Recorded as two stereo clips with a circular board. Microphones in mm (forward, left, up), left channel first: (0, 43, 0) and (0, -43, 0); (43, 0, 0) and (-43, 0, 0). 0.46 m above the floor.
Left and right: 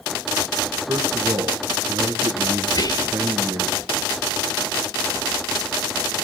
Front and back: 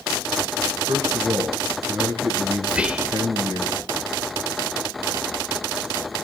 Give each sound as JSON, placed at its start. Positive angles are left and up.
{"t": 0.9, "sound": "a man speaking", "azimuth_deg": -145, "distance_m": 3.0}
{"t": 2.7, "sound": "whispering", "azimuth_deg": 105, "distance_m": 1.4}